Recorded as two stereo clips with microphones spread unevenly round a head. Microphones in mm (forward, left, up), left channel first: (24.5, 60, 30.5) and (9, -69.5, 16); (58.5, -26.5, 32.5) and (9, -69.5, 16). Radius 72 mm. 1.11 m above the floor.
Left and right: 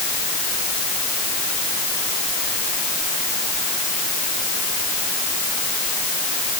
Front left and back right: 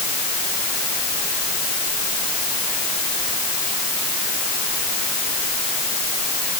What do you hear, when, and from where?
Only background noise.